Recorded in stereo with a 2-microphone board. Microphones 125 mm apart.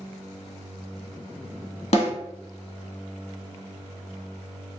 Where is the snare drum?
60° left (ahead or behind), 1.1 m.